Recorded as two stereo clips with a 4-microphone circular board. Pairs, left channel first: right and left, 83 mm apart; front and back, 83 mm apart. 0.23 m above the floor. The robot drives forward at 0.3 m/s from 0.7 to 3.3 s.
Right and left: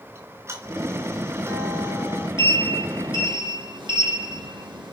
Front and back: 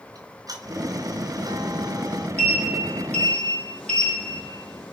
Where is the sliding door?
75° left, 5 m; by 4.9 s 80° left, 5 m.